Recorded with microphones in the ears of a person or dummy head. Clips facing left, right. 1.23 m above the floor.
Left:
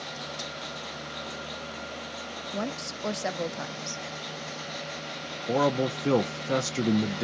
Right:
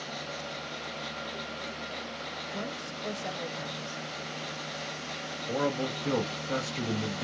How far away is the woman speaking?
About 0.5 m.